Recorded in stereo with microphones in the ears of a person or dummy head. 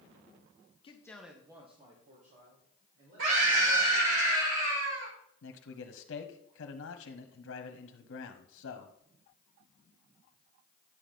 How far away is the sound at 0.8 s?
About 0.8 m.